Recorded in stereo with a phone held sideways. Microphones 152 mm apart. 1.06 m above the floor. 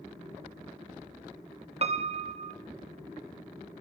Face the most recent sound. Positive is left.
turn(degrees=-45)  # may be behind; listen again after turning